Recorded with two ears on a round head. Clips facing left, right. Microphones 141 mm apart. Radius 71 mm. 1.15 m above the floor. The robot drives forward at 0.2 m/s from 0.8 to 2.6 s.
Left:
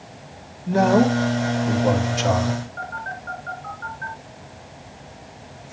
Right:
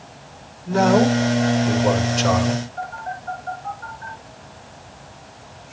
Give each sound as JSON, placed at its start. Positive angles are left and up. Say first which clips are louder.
{"t": 0.7, "sound": "a man speaking", "louder": "right 1 dB", "side_deg": 10, "distance_m": 2.5}
{"t": 2.8, "sound": "a phone buzzing", "louder": "right 3 dB", "side_deg": 60, "distance_m": 6.5}